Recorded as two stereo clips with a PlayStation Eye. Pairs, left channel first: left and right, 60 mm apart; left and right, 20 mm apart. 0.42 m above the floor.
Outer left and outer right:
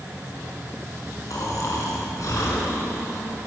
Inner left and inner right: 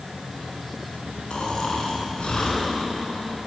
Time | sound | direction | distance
1.3 | snoring | 65° left (ahead or behind) | 5.5 m